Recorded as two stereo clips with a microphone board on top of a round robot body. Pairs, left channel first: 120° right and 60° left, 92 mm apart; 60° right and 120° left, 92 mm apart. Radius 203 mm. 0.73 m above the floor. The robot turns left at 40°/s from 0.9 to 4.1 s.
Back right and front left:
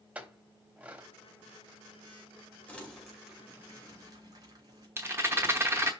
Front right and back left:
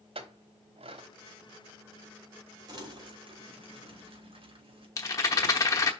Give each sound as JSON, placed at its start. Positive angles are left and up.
{"t": 0.1, "sound": "a clink", "azimuth_deg": 135, "distance_m": 1.0}
{"t": 2.7, "sound": "crumpling", "azimuth_deg": 165, "distance_m": 3.0}
{"t": 5.0, "sound": "a rattle", "azimuth_deg": -5, "distance_m": 0.9}